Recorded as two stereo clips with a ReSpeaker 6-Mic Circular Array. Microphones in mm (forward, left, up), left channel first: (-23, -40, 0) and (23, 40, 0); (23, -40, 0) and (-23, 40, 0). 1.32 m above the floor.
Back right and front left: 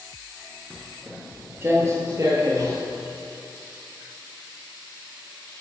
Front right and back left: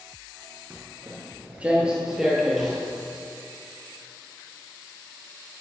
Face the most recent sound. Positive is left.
turn(degrees=30)